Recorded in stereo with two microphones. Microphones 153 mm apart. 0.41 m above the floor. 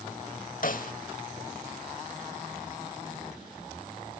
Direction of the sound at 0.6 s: 60° left (ahead or behind).